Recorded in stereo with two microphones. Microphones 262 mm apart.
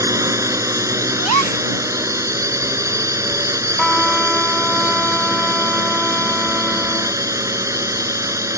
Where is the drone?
10° right (ahead or behind).